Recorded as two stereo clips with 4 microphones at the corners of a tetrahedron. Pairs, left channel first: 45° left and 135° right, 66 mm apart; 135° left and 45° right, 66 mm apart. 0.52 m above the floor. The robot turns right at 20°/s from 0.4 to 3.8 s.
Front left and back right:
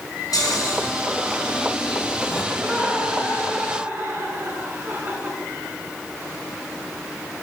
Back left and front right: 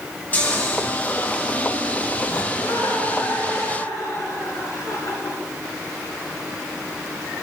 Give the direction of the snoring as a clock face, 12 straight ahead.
10 o'clock.